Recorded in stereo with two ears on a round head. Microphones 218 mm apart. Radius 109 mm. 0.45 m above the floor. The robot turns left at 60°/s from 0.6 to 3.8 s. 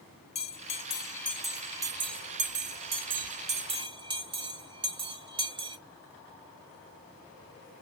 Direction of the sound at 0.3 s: 25° left (ahead or behind).